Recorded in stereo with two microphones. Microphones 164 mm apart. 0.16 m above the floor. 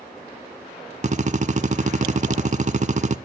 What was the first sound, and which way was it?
A drill, 50° right (ahead or behind).